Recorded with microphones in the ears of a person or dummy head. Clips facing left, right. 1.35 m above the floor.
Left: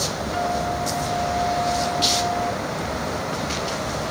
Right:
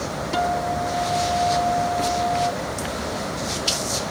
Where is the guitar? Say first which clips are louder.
Right 2 dB; 60° right (ahead or behind).